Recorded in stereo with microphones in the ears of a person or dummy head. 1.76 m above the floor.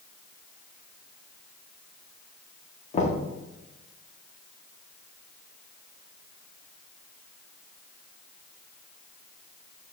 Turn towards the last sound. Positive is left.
turn(degrees=35)  # may be behind; listen again after turning